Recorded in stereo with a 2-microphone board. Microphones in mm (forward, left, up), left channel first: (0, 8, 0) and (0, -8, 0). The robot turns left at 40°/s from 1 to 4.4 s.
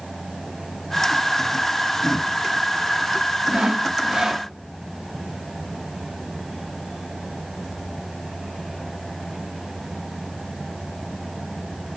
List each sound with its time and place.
3.5 s sawing: 105° right, 1.0 m; by 4.5 s 140° right, 1.0 m